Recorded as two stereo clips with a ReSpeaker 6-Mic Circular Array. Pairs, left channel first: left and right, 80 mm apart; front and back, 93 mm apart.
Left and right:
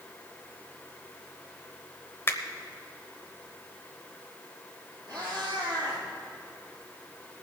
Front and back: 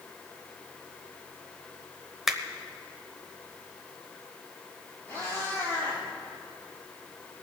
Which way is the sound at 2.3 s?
95° left.